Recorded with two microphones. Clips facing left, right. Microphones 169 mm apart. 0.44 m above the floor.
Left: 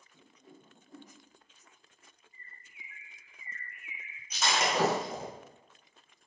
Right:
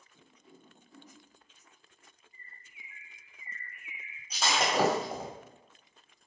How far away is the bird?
About 1.0 m.